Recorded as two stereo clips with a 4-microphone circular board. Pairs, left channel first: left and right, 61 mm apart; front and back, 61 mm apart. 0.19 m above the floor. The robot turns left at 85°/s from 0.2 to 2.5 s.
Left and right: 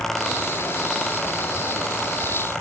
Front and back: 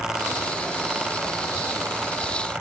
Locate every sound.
Only background noise.